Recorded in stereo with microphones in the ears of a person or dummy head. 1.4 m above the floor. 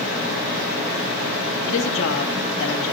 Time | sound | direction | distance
1.6 | a woman speaking | 75° left (ahead or behind) | 1.8 m